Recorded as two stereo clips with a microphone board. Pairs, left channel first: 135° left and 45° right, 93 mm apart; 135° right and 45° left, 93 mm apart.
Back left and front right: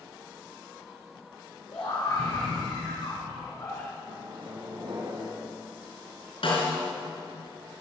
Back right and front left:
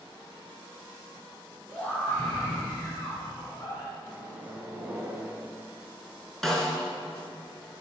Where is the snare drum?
140° left, 3.5 m.